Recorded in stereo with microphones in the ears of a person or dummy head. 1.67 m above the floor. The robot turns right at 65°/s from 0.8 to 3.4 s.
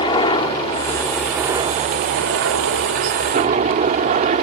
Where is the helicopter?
150° left; by 4.4 s 45° right.